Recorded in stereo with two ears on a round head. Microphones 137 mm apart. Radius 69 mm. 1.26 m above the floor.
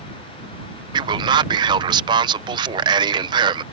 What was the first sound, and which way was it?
A man speaking, 30° right (ahead or behind).